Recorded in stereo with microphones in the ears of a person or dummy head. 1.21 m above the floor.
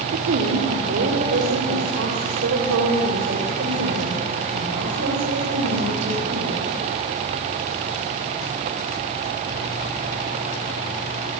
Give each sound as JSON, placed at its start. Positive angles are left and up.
{"t": 0.1, "sound": "a woman speaking", "side_deg": -70, "distance_m": 2.5}